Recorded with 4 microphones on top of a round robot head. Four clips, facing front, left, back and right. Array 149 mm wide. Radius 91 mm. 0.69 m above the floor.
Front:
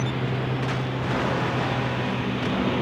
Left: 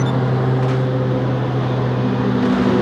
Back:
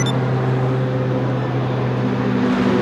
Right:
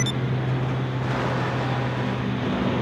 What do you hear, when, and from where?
0.0 s a lawn mower: 130° left